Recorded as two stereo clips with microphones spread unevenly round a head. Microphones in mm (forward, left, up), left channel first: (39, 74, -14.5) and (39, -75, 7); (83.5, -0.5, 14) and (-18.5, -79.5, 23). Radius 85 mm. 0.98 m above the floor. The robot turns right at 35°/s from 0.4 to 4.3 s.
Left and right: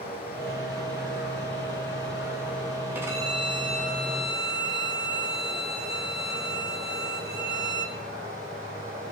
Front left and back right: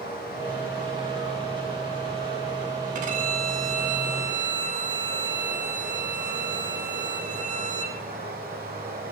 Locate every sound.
0.0 s running water: 60° left, 4.5 m; by 9.1 s 160° right, 4.5 m
3.0 s a violin: 175° right, 1.4 m; by 8.0 s 125° right, 1.4 m